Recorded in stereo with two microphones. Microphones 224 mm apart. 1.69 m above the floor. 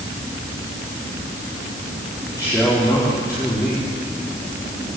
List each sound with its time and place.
2.3 s a man speaking: 15° left (ahead or behind), 5 m